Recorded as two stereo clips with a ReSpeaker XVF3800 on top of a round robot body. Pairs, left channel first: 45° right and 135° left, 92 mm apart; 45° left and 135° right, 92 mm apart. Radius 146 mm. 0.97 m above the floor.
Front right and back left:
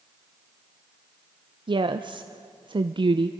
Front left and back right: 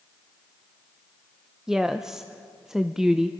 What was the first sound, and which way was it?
A woman speaking, 140° left.